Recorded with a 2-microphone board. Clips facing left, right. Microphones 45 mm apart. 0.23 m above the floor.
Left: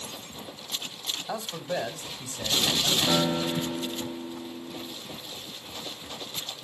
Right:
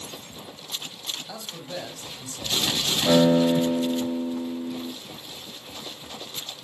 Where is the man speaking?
30° left (ahead or behind), 1.2 m.